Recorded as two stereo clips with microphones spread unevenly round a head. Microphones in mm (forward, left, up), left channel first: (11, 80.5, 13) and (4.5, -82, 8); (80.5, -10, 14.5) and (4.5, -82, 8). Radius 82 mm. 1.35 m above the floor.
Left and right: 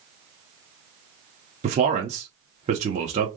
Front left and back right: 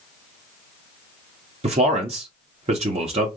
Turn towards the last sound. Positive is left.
turn(degrees=-140)